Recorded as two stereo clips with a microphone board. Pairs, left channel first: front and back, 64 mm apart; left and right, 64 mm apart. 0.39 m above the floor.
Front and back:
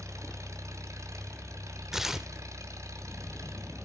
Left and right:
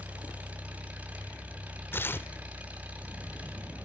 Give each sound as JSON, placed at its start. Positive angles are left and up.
{"t": 0.0, "sound": "an engine running", "azimuth_deg": -155, "distance_m": 2.0}
{"t": 1.9, "sound": "tearing paper", "azimuth_deg": 100, "distance_m": 0.6}